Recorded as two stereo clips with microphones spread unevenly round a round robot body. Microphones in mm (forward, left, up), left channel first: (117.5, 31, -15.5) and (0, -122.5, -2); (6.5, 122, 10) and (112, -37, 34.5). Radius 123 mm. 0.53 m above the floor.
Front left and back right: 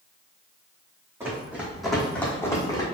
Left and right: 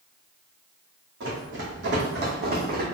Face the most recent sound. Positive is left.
turn(degrees=-20)